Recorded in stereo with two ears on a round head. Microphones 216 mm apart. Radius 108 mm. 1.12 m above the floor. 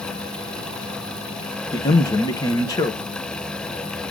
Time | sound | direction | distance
1.7 | a man speaking | 15° left (ahead or behind) | 1.2 m